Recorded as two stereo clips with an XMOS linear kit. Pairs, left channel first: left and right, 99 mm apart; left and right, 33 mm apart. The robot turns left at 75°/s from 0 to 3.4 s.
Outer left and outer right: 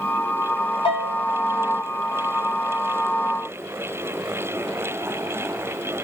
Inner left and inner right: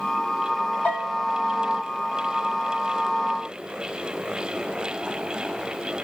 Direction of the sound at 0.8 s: 65° left.